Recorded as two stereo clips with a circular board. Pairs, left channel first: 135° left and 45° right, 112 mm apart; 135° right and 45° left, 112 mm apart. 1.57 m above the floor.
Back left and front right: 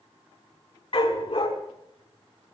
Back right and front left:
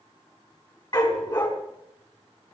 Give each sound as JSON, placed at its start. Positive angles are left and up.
{"t": 0.9, "sound": "a dog barking", "azimuth_deg": 175, "distance_m": 5.0}